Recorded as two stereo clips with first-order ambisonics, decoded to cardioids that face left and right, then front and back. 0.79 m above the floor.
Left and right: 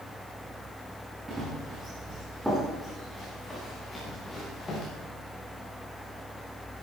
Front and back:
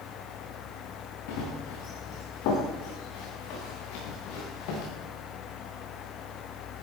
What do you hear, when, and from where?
1.3 s running footsteps: 10° right, 5.5 m; by 4.9 s 15° left, 7.5 m